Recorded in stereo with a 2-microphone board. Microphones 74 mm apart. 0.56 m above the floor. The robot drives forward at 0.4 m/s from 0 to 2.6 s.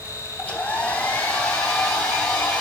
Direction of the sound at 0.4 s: 15° left (ahead or behind).